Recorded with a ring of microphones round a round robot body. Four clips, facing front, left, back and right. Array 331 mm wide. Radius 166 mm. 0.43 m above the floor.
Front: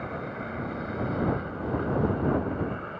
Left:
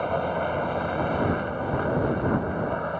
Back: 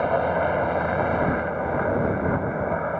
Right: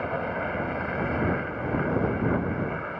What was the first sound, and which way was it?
A helicopter, 170° left.